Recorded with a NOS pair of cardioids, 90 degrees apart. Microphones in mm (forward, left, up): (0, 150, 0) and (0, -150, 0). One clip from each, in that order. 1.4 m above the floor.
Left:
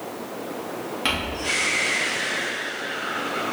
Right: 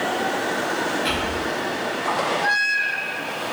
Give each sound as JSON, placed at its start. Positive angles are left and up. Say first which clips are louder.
{"t": 1.1, "sound": "crumpling", "louder": "left 4 dB", "azimuth_deg": 60, "distance_m": 2.5}